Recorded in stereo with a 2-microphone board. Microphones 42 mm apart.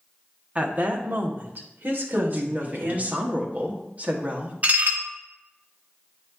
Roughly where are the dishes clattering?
Right.